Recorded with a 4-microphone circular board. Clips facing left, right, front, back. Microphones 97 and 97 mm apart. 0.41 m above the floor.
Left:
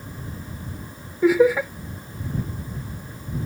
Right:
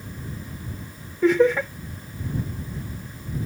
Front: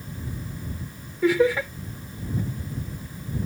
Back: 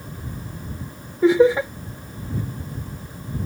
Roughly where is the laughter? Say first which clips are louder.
Left 1 dB, back 5 dB; behind.